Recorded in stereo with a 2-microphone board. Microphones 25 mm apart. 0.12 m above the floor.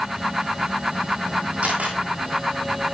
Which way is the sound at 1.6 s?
60° right (ahead or behind).